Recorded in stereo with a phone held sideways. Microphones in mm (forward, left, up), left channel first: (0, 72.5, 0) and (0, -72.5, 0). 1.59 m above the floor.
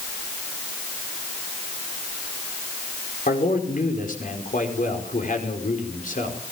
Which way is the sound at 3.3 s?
65° left (ahead or behind).